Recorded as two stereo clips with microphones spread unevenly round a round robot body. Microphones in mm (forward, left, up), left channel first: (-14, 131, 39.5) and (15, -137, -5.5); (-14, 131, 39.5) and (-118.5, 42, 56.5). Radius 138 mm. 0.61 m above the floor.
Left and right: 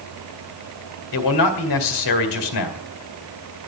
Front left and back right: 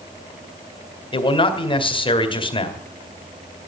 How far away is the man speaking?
About 2.5 m.